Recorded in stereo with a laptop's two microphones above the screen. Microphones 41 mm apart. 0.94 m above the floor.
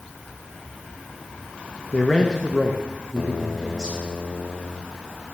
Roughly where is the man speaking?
Left.